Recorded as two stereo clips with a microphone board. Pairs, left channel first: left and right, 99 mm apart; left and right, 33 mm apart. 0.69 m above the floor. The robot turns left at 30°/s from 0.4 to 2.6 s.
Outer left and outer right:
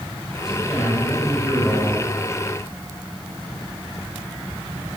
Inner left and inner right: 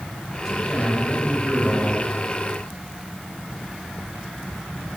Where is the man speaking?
175° right, 3.5 m; by 2.0 s 140° left, 3.5 m.